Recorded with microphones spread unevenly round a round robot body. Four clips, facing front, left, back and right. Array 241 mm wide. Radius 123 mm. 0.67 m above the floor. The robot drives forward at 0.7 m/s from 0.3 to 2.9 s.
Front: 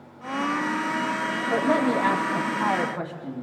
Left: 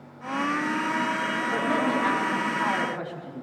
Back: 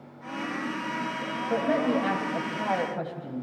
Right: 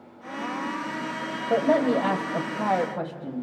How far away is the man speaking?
About 3.5 m.